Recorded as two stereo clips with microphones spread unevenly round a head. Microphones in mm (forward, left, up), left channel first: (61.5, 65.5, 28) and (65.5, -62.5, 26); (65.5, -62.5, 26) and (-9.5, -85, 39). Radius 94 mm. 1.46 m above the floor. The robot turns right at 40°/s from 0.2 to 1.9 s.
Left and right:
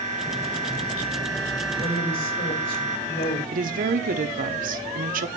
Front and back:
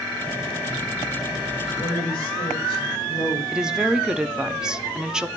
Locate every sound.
1.8 s a woman speaking: 80° left, 7 m; by 3.4 s 85° left, 7 m
3.5 s a woman speaking: 80° right, 1.0 m